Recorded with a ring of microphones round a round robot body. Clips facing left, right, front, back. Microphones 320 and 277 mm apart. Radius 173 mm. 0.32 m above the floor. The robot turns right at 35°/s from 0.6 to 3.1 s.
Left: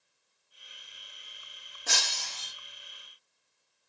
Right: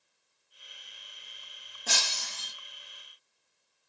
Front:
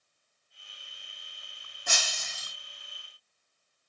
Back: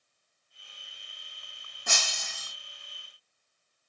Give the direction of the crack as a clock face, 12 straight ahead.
I don't hear a crack.